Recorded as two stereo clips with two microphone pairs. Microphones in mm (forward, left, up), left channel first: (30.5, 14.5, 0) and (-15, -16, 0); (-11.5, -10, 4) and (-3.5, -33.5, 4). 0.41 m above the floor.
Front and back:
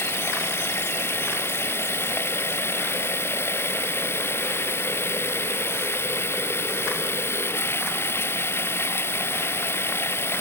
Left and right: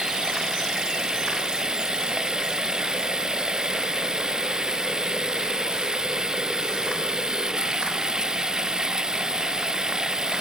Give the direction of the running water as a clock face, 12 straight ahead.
12 o'clock.